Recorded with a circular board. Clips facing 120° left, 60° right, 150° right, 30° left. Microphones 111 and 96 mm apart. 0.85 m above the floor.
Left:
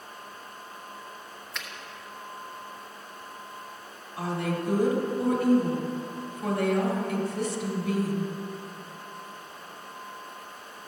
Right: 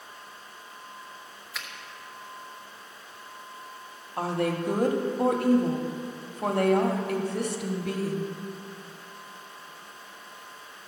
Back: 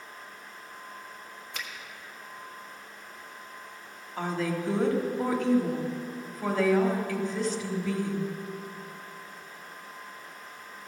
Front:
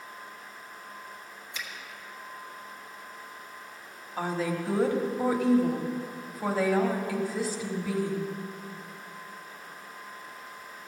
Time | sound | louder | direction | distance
1.5 | a finger snap | even, even | 145° right | 1.3 m
4.2 | a woman speaking | right 3 dB, even | 55° right | 1.4 m